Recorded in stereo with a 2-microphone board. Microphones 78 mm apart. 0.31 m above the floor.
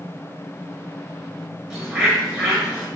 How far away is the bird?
About 0.8 m.